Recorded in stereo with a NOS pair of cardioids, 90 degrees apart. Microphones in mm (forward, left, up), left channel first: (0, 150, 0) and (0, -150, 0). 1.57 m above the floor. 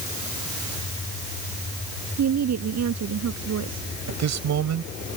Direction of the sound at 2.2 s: 60° right.